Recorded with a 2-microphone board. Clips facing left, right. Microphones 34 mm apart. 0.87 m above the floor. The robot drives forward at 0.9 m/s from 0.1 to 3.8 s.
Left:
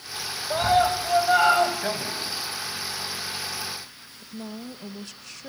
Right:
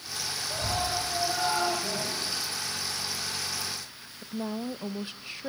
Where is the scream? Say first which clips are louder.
Left 11 dB; 65° left (ahead or behind), 5 m; by 1.7 s 80° left, 4.5 m.